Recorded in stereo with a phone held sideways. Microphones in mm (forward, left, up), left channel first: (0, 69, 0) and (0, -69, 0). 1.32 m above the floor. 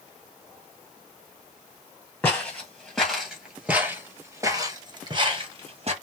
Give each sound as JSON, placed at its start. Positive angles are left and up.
{"t": 2.2, "sound": "footsteps", "side_deg": 15, "distance_m": 1.9}